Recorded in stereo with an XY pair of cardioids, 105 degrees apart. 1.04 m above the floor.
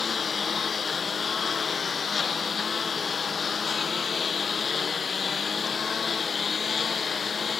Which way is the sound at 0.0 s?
35° left.